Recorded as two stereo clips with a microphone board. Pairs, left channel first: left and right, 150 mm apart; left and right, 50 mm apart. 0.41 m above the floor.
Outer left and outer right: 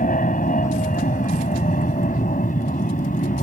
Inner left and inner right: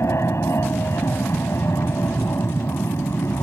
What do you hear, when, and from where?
0.0 s an aircraft: 60° left (ahead or behind)